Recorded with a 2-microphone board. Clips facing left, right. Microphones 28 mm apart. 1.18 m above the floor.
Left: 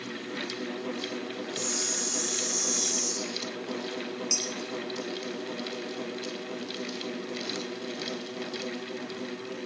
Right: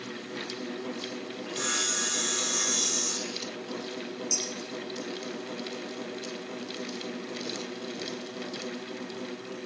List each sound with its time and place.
1.5 s sawing: 70° right (ahead or behind), 1.0 m
4.3 s dishes clattering: 50° left (ahead or behind), 2.5 m